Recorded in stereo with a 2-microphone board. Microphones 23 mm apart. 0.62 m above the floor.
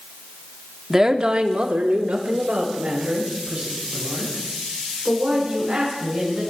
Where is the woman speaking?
20° right (ahead or behind), 1.0 m; by 6.4 s 65° right (ahead or behind), 7.5 m.